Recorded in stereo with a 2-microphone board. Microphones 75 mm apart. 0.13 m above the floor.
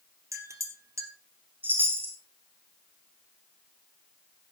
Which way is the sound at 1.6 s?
25° right (ahead or behind).